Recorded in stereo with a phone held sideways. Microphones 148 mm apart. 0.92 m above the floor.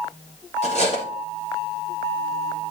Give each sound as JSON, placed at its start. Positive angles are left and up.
{"t": 0.6, "sound": "cutlery clinking", "side_deg": 45, "distance_m": 1.8}